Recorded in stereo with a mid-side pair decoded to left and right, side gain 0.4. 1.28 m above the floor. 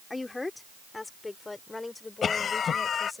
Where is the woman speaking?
25° left.